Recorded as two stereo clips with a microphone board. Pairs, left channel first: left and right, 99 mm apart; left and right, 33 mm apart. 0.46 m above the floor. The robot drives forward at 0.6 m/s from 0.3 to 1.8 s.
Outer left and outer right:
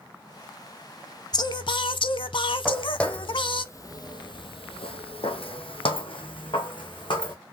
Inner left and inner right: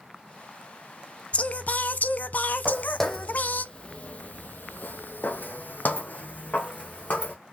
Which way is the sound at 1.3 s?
45° left (ahead or behind).